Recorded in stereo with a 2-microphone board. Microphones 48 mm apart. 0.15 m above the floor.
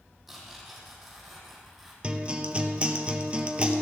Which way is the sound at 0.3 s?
5° right (ahead or behind).